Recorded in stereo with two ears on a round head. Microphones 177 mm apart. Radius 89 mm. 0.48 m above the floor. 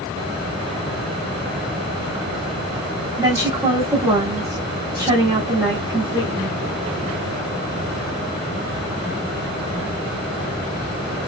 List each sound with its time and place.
3.2 s a woman speaking: 20° right (ahead or behind), 1.0 m